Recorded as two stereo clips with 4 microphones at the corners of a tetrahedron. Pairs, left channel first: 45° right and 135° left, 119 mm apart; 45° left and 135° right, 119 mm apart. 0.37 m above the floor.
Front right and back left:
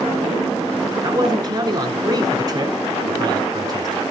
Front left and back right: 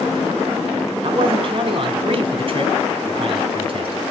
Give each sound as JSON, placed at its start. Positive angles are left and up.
{"t": 1.0, "sound": "a man speaking", "azimuth_deg": -170, "distance_m": 3.0}